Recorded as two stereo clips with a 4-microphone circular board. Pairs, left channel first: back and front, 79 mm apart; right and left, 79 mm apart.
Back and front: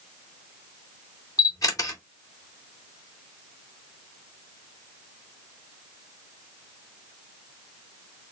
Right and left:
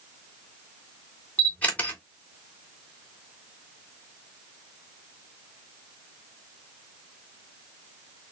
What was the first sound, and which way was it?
A camera shutter, 155° right.